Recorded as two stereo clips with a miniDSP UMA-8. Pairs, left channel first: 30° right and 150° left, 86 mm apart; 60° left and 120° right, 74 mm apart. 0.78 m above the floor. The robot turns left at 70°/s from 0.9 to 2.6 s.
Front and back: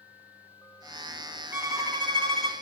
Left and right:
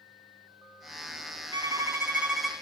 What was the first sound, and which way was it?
A violin, 145° right.